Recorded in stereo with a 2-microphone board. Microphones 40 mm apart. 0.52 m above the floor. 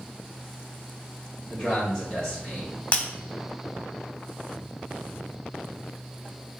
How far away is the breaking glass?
About 0.7 m.